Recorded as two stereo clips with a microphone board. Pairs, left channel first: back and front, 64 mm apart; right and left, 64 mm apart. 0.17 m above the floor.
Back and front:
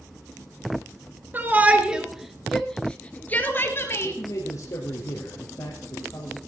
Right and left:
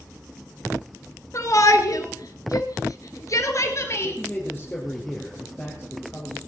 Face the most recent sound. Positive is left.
turn(degrees=-160)